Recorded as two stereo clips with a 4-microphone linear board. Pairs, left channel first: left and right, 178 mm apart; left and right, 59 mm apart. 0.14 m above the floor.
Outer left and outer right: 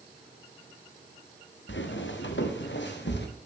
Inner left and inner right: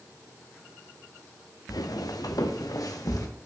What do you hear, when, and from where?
1.7 s footsteps: 80° left, 1.3 m; by 3.3 s 70° left (ahead or behind), 2 m